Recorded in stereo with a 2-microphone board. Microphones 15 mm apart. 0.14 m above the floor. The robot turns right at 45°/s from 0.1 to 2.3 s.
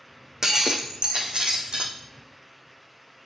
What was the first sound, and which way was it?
Breaking glass, 140° right.